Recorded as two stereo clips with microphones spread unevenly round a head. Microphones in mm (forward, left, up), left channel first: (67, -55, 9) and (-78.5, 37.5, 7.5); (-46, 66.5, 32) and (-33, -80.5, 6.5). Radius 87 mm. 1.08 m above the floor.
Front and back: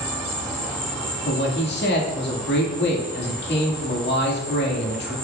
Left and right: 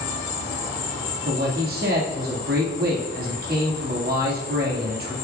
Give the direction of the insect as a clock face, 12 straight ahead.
10 o'clock.